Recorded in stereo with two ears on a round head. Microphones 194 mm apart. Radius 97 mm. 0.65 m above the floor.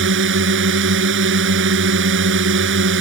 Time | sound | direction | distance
0.0 | a drone | 55° right (ahead or behind) | ?